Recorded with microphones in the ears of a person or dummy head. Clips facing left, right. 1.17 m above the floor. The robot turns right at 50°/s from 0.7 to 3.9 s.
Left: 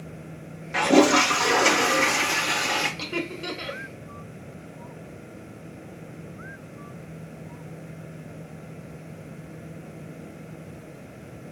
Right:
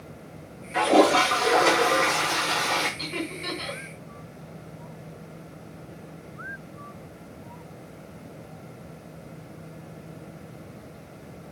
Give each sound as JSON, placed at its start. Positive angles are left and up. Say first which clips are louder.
{"t": 0.7, "sound": "a toilet flushing", "louder": "left 1 dB", "azimuth_deg": 65, "distance_m": 1.4}
{"t": 3.0, "sound": "laughter", "louder": "left 2 dB", "side_deg": 65, "distance_m": 1.6}